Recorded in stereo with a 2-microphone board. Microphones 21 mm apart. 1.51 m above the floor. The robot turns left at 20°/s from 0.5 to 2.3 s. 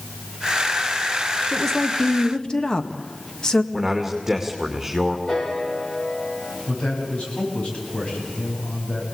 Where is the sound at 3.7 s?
10° right (ahead or behind), 2.5 m.